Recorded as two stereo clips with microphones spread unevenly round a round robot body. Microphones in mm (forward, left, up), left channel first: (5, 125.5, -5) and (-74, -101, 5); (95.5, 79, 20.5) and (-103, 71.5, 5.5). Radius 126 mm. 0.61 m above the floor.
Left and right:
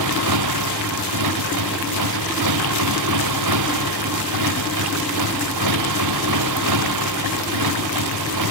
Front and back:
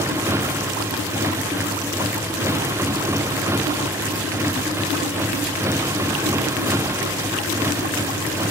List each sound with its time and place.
0.0 s a motorcycle: 100° right